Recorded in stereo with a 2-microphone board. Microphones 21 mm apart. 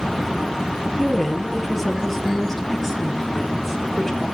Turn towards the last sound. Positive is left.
turn(degrees=5)  # may be behind; listen again after turning